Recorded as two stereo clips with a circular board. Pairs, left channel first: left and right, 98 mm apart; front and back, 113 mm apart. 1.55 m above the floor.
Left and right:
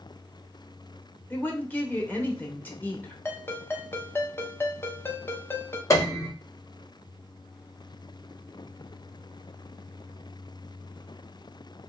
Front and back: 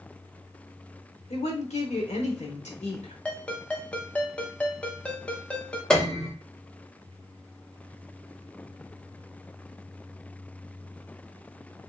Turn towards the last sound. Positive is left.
turn(degrees=80)